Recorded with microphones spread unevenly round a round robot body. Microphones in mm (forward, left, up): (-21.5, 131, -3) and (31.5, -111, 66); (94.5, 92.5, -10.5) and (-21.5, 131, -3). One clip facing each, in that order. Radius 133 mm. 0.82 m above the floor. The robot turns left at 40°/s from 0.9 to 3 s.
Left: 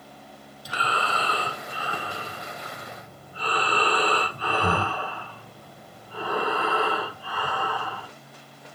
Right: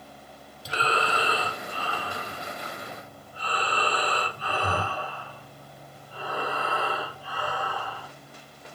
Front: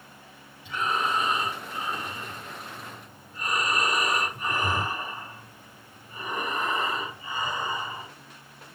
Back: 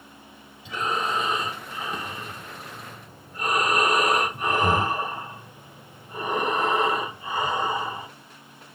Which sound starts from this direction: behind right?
Breathing, at 0.7 s.